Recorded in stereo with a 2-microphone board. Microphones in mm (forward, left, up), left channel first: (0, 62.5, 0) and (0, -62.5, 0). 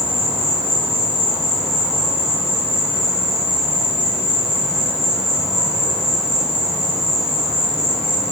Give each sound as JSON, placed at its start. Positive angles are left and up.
{"t": 0.0, "sound": "an insect", "side_deg": 5, "distance_m": 3.0}